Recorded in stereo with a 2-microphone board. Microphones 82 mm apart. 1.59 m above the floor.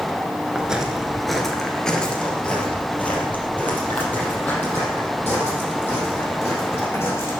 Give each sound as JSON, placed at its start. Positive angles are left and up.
{"t": 0.6, "sound": "footsteps", "side_deg": -15, "distance_m": 1.6}